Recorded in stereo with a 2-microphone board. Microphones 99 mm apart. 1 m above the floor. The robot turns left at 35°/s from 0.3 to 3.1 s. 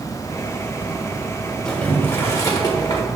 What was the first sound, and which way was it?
Boiling, 170° left.